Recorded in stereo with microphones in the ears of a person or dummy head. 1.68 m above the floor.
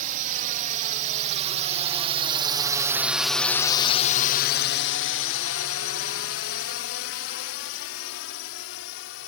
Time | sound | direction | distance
0.0 | a drone | 50° right (ahead or behind) | ?